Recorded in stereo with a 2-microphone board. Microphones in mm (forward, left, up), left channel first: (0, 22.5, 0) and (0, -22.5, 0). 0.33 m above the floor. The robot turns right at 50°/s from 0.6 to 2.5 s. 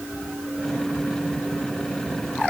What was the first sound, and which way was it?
Only background noise.